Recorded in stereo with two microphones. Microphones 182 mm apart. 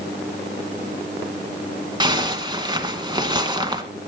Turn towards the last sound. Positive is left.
turn(degrees=-25)  # may be behind; listen again after turning